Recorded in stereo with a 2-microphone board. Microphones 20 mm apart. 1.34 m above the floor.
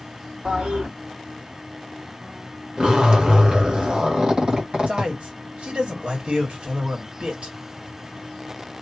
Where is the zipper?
45° right (ahead or behind), 1.5 m.